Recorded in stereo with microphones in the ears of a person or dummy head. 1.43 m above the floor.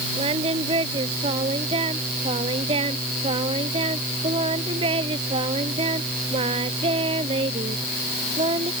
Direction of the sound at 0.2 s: 25° right (ahead or behind).